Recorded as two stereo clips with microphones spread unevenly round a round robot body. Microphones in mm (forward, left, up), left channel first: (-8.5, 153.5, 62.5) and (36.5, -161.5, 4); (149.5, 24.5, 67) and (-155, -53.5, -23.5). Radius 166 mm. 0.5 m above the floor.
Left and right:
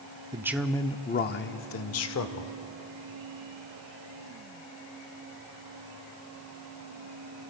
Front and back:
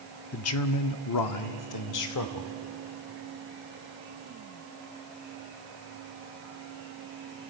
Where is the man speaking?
35° right, 0.8 m; by 2.5 s 60° left, 1.6 m.